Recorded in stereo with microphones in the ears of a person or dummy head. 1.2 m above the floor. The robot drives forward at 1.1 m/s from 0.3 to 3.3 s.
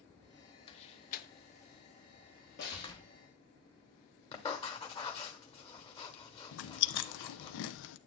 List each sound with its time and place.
0.7 s a door slam: 25° left (ahead or behind), 1.2 m; by 3.1 s 15° left (ahead or behind), 1.7 m
2.6 s a snare drum: 55° left (ahead or behind), 2.5 m; by 2.9 s 50° left (ahead or behind), 3 m
4.3 s writing: 25° left (ahead or behind), 1.3 m
6.5 s chewing: 65° left (ahead or behind), 0.6 m